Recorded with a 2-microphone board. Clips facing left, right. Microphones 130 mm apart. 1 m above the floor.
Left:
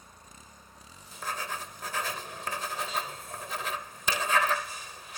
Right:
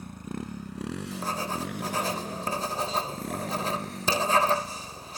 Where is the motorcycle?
70° right (ahead or behind); by 5.2 s 85° right.